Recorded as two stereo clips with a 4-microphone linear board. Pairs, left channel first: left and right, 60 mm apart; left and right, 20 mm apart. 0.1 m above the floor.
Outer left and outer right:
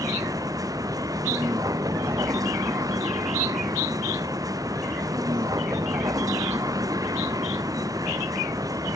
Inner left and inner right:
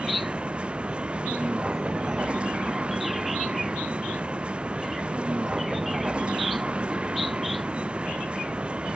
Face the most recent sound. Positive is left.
turn(degrees=-80)